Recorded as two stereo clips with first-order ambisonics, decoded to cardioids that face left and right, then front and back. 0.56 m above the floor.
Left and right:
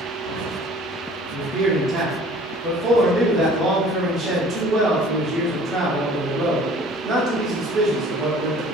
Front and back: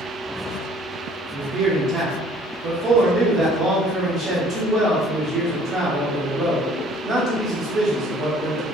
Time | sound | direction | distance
1.3 | a man speaking | 140° right | 1.0 m